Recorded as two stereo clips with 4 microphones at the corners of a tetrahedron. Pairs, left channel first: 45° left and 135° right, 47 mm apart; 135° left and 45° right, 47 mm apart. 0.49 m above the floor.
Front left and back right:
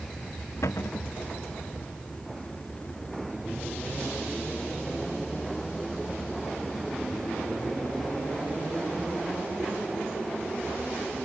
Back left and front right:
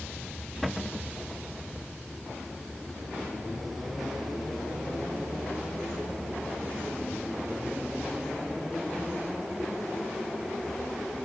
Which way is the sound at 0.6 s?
40° left.